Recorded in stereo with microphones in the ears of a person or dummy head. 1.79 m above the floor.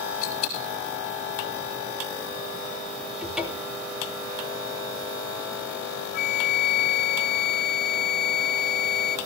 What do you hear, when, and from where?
0.2 s a dropped coin: 45° left (ahead or behind), 3.5 m
3.2 s a cupboard door: 5° right (ahead or behind), 3 m
6.1 s a flute: 50° left (ahead or behind), 0.5 m